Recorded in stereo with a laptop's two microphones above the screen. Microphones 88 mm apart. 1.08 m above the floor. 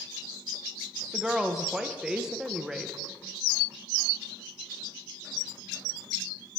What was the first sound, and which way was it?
A woman speaking, 5° right (ahead or behind).